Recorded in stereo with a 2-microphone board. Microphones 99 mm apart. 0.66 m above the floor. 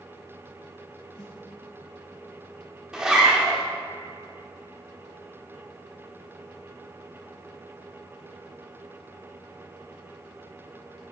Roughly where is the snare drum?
Left.